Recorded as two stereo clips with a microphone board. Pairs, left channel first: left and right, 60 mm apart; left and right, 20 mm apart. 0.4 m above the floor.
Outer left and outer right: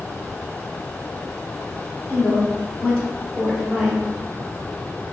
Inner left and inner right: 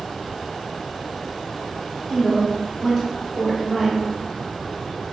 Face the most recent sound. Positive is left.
turn(degrees=-15)  # may be behind; listen again after turning